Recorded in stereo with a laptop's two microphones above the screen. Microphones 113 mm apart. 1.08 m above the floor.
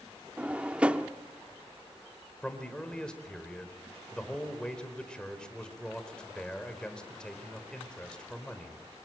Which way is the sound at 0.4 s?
10° right (ahead or behind).